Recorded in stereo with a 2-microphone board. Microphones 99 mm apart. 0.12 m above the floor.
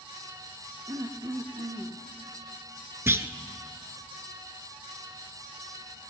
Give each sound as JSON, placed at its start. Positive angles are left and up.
{"t": 0.9, "sound": "throat clearing", "side_deg": -40, "distance_m": 1.1}
{"t": 3.1, "sound": "a clunk", "side_deg": -25, "distance_m": 0.6}